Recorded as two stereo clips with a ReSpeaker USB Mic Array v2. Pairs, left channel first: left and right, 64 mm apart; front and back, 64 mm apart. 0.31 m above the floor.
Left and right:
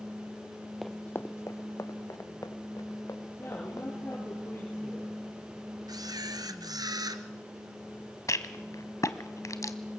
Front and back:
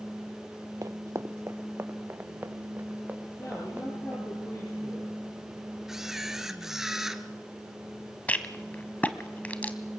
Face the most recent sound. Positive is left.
turn(degrees=65)